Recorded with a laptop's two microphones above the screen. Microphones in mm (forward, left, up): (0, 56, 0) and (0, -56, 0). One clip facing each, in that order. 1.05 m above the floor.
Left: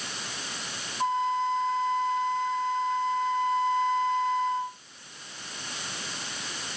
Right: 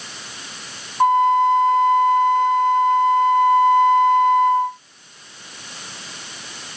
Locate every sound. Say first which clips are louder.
1.0 s a flute: right 12 dB; 65° right (ahead or behind)